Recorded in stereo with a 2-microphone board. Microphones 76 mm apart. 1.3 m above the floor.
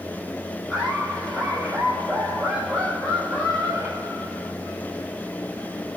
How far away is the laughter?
About 8 m.